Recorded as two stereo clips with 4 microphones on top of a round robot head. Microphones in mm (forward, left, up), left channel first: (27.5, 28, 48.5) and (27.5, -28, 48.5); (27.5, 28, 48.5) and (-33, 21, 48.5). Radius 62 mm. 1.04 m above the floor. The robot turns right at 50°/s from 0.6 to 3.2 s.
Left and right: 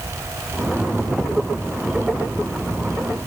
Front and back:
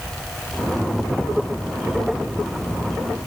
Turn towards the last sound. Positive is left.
No sound to turn to.